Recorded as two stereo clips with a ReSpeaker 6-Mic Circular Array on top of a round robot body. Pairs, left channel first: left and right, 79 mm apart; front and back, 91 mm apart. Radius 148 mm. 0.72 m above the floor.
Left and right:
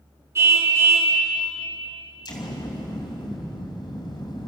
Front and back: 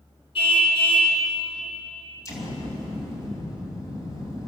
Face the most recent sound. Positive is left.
turn(degrees=60)